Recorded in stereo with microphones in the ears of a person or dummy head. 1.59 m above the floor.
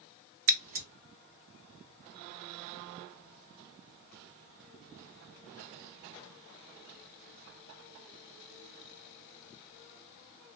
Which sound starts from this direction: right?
Scissors, at 0.5 s.